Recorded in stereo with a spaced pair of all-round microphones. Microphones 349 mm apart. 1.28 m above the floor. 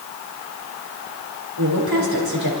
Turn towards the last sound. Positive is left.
turn(degrees=-80)